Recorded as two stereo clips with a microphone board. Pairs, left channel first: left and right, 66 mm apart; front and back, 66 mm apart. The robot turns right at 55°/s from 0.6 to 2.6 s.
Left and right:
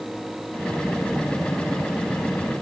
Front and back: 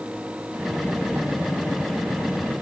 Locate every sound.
Only background noise.